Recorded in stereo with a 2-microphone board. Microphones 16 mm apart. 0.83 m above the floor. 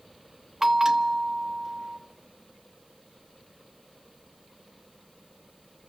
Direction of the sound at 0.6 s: 30° right (ahead or behind).